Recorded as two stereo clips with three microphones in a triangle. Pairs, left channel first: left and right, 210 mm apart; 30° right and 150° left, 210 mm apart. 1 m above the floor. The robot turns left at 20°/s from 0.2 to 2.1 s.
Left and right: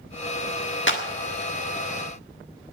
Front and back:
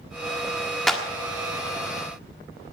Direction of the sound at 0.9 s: 60° left.